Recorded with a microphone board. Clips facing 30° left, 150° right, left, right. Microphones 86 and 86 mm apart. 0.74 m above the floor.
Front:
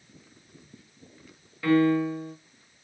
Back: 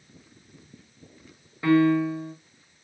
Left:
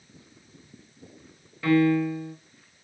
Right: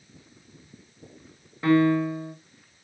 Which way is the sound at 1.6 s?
115° right.